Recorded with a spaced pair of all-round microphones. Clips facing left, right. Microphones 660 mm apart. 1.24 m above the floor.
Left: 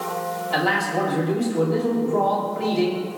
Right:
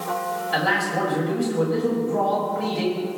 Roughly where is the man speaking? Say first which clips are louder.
Left 2 dB; right.